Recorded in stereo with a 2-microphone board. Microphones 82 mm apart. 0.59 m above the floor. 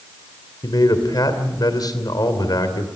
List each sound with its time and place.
0.6 s a man speaking: 55° left (ahead or behind), 2.5 m